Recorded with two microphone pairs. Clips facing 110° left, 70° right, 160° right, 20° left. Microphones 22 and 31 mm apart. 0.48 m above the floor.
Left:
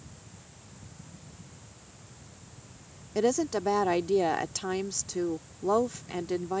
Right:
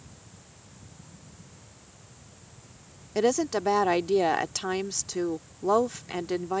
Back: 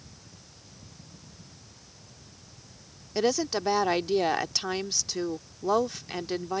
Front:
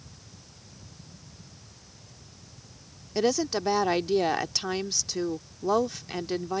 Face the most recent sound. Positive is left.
turn(degrees=-80)